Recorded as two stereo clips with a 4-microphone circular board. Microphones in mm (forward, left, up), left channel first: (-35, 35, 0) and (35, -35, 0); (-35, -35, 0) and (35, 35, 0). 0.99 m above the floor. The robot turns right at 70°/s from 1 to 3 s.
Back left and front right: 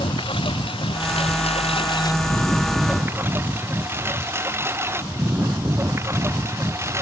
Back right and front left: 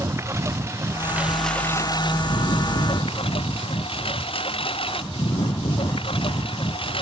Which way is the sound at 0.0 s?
105° left.